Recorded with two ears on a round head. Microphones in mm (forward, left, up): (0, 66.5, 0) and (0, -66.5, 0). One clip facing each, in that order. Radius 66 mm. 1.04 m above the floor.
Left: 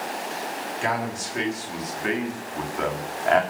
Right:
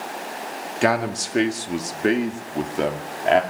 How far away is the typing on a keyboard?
I don't hear typing on a keyboard.